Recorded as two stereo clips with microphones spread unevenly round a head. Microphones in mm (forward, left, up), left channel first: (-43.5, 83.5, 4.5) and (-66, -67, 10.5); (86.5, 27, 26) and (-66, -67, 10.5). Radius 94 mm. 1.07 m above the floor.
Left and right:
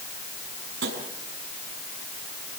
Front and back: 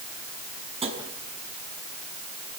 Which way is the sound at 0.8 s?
90° right.